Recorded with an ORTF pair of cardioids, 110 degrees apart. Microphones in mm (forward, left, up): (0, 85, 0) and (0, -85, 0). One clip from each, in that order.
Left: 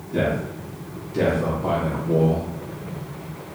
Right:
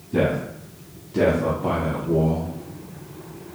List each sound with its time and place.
0.1 s a man speaking: 30° right, 2 m; by 2.5 s 30° left, 1.1 m